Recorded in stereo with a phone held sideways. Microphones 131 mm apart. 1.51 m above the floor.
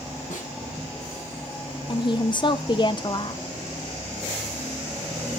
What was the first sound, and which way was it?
A snare drum, 80° left.